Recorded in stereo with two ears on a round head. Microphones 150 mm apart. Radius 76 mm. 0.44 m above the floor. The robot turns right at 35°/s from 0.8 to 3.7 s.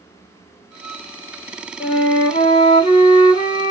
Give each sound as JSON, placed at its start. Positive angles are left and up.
{"t": 1.8, "sound": "a flute", "azimuth_deg": 70, "distance_m": 1.6}